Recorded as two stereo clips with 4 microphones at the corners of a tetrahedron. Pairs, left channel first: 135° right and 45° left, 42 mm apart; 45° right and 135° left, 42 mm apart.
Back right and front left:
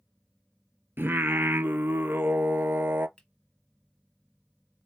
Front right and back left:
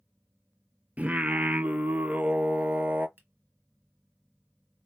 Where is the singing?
80° left, 0.6 m.